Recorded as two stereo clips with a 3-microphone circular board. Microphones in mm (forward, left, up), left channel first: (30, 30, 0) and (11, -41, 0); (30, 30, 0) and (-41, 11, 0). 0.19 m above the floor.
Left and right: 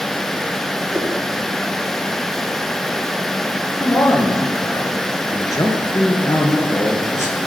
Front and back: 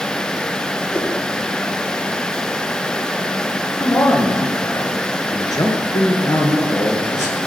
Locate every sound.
0.9 s a whoosh: 40° right, 3 m
3.8 s a man speaking: 45° left, 2.5 m